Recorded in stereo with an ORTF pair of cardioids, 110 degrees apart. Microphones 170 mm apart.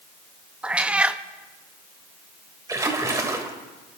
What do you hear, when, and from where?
0.6 s a cat meowing: 10° right, 0.6 m
2.7 s a splash: 20° right, 2 m